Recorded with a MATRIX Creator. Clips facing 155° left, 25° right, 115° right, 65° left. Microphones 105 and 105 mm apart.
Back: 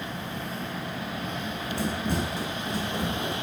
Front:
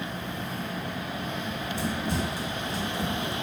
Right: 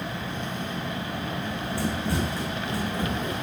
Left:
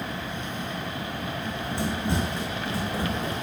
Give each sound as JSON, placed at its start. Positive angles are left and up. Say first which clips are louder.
{"t": 1.4, "sound": "running footsteps", "louder": "back 2 dB, even", "azimuth_deg": 135, "distance_m": 3.5}